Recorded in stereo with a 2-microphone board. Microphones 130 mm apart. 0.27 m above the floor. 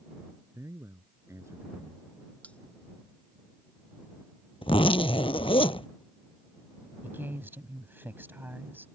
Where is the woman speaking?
15° right (ahead or behind).